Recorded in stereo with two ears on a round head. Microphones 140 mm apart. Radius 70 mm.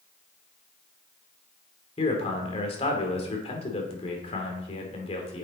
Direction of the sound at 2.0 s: 35° left (ahead or behind).